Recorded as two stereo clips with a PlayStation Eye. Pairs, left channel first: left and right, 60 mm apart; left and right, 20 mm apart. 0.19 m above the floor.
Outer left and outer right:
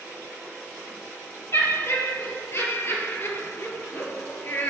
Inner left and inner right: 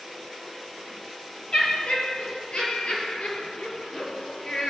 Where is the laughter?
55° left (ahead or behind), 5 m; by 4.7 s 45° left (ahead or behind), 3.5 m.